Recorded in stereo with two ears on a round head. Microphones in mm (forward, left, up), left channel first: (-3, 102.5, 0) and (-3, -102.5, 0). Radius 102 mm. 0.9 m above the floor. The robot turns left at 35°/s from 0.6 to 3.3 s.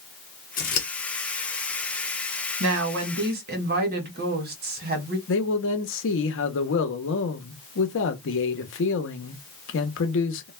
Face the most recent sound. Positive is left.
turn(degrees=55)  # may be behind; listen again after turning